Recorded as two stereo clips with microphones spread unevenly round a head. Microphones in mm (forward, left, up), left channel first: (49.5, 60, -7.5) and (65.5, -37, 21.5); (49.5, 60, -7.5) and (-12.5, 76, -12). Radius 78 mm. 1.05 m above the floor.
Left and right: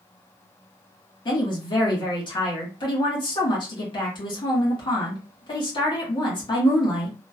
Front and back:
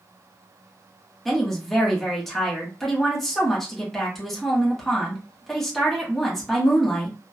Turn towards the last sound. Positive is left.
turn(degrees=75)